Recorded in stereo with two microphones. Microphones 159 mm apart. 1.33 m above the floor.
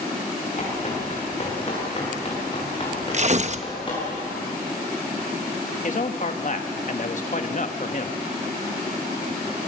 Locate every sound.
0.6 s running footsteps: 45° left (ahead or behind), 9.5 m; by 4.1 s 30° left (ahead or behind), 10.5 m
3.1 s tearing paper: 45° right (ahead or behind), 0.8 m
5.8 s a man speaking: 50° left (ahead or behind), 1.6 m